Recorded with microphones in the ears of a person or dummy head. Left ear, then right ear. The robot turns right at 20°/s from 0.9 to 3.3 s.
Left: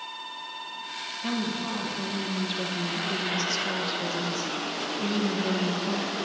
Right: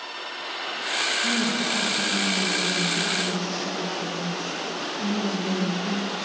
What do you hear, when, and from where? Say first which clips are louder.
1.2 s a woman speaking: right 7 dB; 5° left, 1.3 m; by 6.2 s 45° left, 1.3 m